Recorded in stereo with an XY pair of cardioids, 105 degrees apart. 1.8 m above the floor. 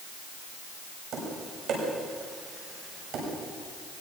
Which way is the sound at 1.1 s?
70° right.